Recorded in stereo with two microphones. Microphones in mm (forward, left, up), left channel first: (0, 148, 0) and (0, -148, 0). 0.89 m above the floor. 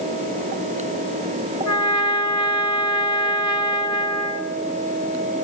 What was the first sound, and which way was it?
A trumpet, 70° left (ahead or behind).